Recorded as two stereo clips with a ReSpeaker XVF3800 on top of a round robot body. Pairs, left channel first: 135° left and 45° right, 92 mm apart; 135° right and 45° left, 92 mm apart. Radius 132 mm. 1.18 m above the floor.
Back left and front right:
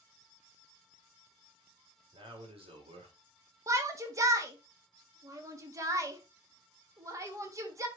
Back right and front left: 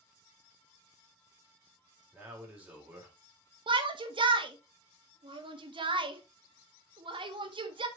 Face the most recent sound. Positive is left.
turn(degrees=10)